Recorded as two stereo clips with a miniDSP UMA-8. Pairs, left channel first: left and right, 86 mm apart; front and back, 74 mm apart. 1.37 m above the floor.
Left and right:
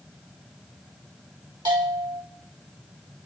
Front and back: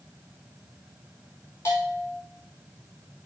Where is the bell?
55° right, 4.5 m.